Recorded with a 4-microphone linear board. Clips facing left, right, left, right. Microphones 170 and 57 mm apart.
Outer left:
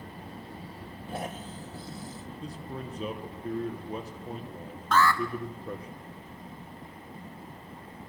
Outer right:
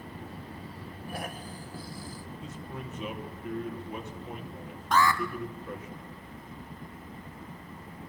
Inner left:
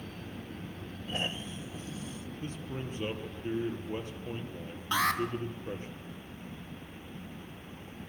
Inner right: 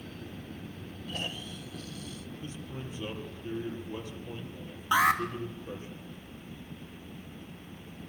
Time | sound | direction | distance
1.1 | snoring | 25° left (ahead or behind) | 1.1 m
2.4 | a man speaking | 35° left (ahead or behind) | 4.5 m
4.9 | an alarm | 15° right (ahead or behind) | 2.5 m